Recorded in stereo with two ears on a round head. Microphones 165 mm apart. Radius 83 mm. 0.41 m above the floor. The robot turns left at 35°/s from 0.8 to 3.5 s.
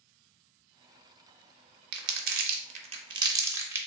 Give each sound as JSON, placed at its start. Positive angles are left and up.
{"t": 1.9, "sound": "crumpling", "side_deg": -60, "distance_m": 0.6}